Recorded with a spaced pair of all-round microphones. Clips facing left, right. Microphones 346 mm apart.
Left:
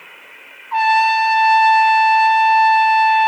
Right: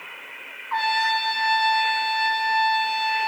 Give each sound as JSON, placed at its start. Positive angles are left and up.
{"t": 0.7, "sound": "a trumpet", "side_deg": 40, "distance_m": 1.0}